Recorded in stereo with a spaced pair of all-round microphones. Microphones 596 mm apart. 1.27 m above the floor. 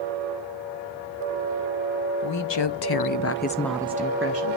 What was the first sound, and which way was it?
A woman speaking, 50° left (ahead or behind).